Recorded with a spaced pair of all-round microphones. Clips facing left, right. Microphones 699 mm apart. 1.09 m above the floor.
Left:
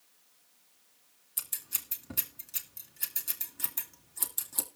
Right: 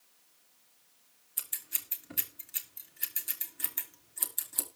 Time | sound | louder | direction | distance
1.4 | scissors | left 2 dB | 65° left (ahead or behind) | 2.5 m